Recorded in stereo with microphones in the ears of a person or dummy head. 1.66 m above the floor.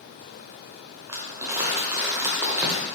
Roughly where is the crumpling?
Centre.